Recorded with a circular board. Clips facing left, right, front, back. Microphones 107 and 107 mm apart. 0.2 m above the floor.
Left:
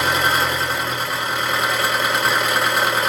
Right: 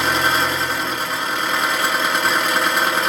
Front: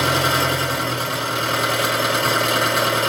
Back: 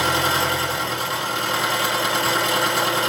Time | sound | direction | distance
0.0 | an engine running | 5° left | 2 m